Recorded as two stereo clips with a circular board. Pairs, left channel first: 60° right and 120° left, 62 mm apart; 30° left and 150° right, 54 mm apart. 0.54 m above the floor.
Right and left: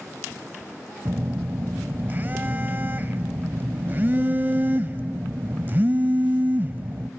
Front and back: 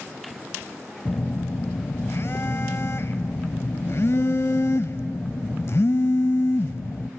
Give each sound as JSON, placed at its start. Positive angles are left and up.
{"t": 1.1, "sound": "a phone buzzing", "azimuth_deg": 65, "distance_m": 0.6}